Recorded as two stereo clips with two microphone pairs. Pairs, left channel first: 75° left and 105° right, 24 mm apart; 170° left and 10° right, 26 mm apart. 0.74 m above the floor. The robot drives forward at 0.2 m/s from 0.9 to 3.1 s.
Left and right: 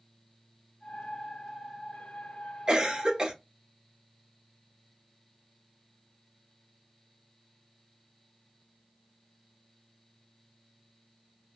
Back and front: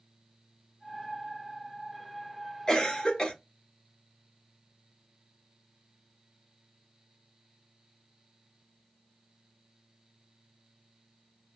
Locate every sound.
2.7 s a cough: 140° right, 0.6 m; by 3.3 s 145° right, 0.7 m